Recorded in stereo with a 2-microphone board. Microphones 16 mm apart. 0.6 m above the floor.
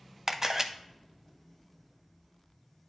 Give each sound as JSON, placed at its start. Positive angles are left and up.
{"t": 0.3, "sound": "a camera shutter", "side_deg": -30, "distance_m": 0.6}